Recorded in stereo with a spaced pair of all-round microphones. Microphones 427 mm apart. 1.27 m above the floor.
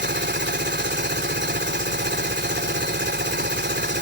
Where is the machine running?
25° right (ahead or behind).